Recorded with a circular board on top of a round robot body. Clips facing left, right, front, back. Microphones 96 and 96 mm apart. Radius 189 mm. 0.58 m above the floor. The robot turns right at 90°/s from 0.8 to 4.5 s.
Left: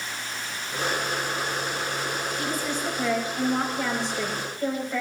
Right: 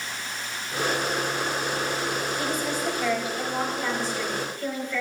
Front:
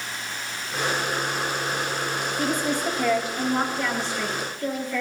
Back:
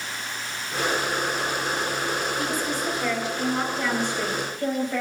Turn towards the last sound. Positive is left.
turn(degrees=145)